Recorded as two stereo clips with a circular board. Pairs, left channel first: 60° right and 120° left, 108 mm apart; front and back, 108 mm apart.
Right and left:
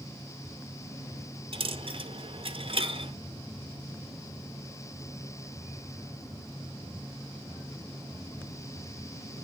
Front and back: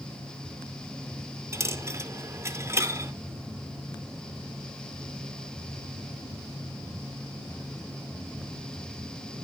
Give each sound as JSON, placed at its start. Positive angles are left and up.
{"t": 1.5, "sound": "a dropped coin", "azimuth_deg": 120, "distance_m": 0.7}